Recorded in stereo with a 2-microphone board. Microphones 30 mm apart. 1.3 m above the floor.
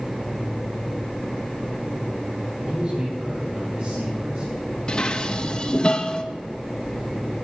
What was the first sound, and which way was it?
A man speaking, 50° right (ahead or behind).